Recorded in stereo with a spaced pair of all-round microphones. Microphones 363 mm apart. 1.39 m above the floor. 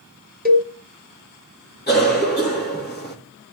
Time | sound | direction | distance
0.5 | a cowbell | 25° right (ahead or behind) | 1.5 m
1.9 | a cough | 25° left (ahead or behind) | 3.5 m